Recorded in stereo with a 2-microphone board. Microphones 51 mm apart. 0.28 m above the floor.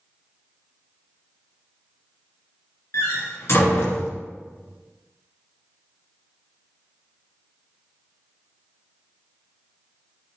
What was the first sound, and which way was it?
A door slam, 60° left (ahead or behind).